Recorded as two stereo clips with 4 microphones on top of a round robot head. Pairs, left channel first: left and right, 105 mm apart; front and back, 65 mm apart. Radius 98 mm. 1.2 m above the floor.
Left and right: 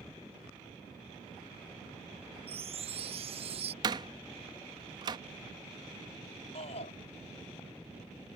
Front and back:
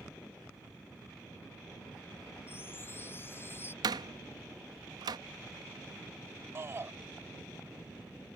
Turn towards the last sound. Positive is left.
turn(degrees=130)